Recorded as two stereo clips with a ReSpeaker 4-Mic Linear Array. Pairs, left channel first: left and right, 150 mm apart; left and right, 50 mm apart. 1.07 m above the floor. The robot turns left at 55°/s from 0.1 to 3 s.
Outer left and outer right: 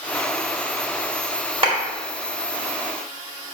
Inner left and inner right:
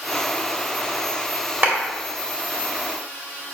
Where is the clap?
40° right (ahead or behind), 1.9 m; by 1.8 s 35° right (ahead or behind), 1.9 m.